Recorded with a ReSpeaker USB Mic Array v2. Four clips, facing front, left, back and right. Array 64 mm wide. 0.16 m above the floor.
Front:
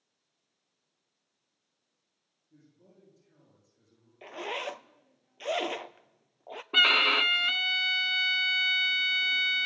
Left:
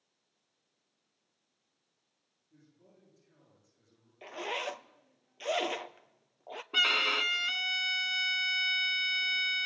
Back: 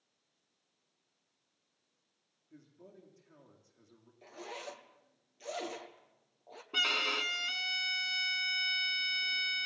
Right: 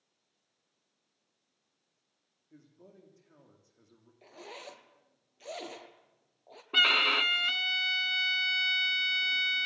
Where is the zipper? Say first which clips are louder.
Left 10 dB, front 9 dB; 35° left, 0.7 m.